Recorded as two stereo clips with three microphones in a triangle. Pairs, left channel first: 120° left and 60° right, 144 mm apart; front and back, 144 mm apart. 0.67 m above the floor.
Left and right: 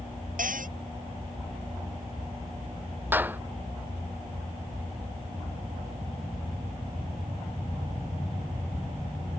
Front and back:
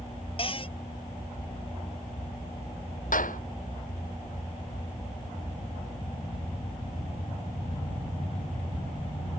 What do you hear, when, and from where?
0.4 s a cupboard door: 50° right
3.1 s a clap: 15° left